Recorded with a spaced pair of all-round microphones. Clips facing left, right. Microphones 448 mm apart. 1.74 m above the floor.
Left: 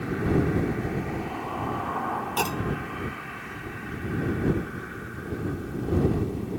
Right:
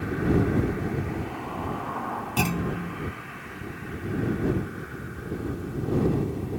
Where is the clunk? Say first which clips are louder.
Right 3 dB; 40° right (ahead or behind).